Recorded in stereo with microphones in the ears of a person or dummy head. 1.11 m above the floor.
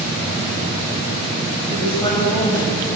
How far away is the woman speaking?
About 6.5 m.